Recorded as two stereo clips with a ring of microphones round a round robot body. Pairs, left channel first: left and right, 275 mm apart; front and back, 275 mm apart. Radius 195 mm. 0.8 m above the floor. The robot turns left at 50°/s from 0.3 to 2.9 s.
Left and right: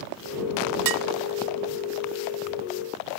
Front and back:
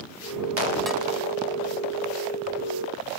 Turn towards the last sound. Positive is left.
turn(degrees=170)